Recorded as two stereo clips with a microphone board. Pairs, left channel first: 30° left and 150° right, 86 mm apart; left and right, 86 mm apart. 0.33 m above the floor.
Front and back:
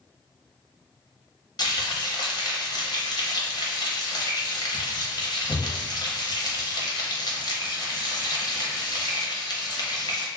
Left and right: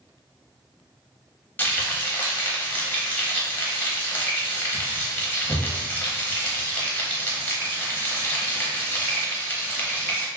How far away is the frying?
About 0.8 m.